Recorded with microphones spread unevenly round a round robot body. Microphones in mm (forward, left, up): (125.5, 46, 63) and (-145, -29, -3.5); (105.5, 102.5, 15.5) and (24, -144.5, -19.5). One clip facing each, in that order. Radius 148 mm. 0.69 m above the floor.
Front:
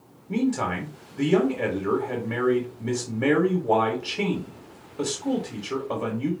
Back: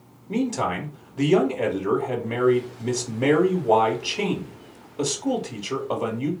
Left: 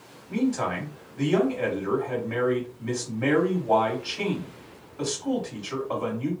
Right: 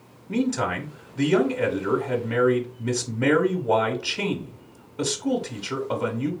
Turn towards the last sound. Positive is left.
turn(degrees=-95)